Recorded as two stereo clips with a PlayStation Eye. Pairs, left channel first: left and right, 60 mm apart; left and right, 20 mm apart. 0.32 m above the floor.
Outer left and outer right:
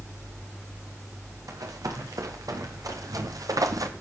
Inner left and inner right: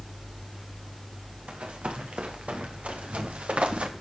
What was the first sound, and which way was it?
Running footsteps, 85° right.